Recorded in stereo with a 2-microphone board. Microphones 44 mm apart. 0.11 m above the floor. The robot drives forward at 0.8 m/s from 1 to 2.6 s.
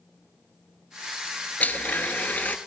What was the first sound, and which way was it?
A blender, 40° left (ahead or behind).